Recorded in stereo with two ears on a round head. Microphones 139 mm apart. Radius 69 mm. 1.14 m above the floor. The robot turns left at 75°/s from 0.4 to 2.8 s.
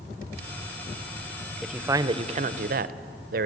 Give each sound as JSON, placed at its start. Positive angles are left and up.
{"t": 1.6, "sound": "a man speaking", "azimuth_deg": 0, "distance_m": 0.7}